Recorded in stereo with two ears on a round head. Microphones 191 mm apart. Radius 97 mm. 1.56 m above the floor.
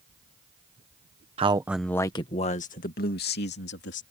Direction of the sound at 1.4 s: 30° right (ahead or behind).